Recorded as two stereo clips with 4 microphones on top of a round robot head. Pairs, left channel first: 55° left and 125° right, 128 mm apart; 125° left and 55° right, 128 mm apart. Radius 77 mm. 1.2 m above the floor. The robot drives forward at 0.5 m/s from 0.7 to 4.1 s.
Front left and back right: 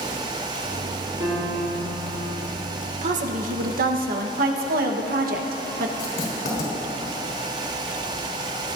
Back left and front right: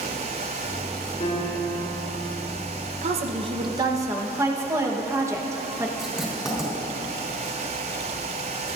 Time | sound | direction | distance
1.2 | a piano | 170° left | 3 m
3.0 | a woman speaking | 90° right | 0.8 m
6.0 | writing | 30° left | 3.5 m